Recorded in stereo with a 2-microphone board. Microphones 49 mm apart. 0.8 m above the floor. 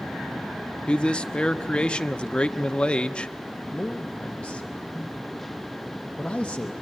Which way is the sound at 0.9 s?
20° left (ahead or behind).